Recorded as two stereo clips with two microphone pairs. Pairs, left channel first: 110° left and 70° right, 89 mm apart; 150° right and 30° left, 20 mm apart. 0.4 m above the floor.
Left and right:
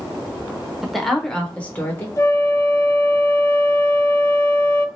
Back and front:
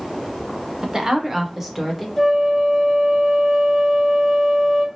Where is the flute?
125° left, 0.9 m.